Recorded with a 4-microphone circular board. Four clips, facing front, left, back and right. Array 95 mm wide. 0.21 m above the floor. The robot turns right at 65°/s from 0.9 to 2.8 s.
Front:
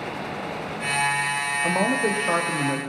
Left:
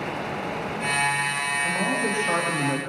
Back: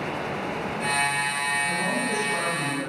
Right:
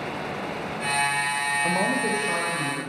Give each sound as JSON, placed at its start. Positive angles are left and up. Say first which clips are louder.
{"t": 1.6, "sound": "a man speaking", "louder": "right 1 dB, front 5 dB", "azimuth_deg": -25, "distance_m": 7.5}